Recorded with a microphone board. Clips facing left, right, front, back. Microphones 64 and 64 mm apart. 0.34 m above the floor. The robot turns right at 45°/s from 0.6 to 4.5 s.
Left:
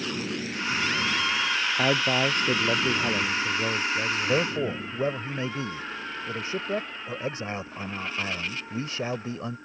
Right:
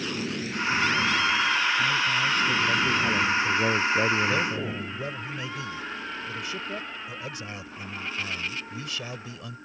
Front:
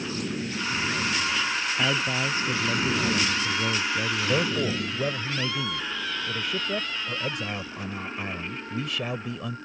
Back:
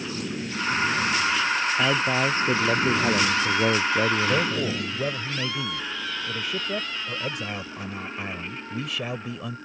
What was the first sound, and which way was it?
A man speaking, 105° left.